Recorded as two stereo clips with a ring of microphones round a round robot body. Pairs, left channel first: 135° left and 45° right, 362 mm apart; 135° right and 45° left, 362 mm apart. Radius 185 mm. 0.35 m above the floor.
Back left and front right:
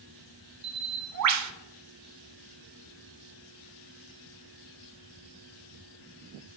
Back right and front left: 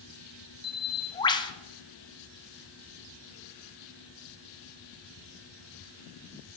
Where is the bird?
60° right, 0.6 m.